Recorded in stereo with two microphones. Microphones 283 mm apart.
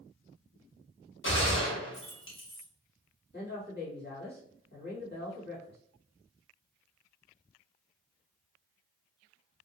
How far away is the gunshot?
About 1.0 m.